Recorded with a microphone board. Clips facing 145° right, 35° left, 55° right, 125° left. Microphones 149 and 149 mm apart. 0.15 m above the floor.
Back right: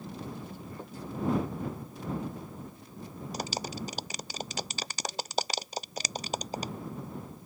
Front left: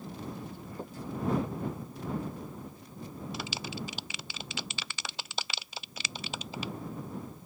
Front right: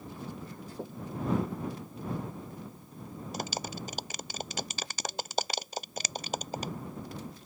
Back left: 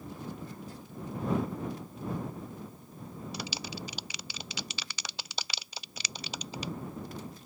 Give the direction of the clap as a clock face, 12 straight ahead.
3 o'clock.